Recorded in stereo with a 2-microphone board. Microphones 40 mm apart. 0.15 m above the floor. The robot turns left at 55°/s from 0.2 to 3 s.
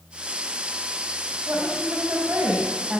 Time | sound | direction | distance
1.5 | a woman speaking | 75° right | 8 m